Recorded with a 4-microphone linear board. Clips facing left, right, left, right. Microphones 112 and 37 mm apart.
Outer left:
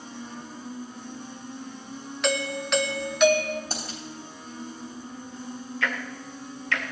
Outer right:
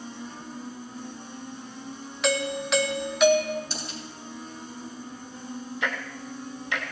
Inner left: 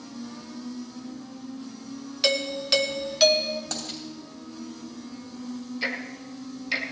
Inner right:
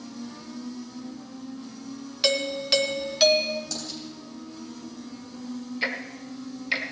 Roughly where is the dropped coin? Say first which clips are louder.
Outer left 1 dB, inner left 1 dB; left.